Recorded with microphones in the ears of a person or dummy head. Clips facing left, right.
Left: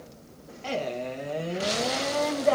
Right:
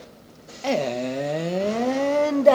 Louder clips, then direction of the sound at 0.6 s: Right 7 dB; 70° right (ahead or behind).